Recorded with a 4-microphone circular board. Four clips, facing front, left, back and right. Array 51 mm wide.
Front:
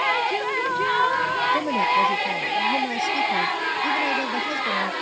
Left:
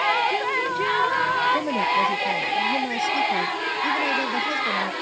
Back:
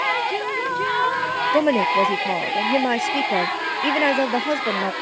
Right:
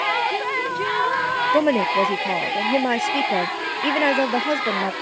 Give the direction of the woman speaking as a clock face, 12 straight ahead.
4 o'clock.